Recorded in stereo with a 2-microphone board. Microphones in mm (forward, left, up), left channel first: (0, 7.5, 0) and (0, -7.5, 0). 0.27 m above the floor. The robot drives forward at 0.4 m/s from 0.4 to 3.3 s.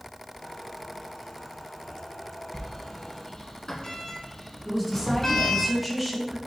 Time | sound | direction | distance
2.5 | a sliding door | 55° left (ahead or behind) | 0.7 m
4.7 | a woman speaking | 10° left (ahead or behind) | 1.5 m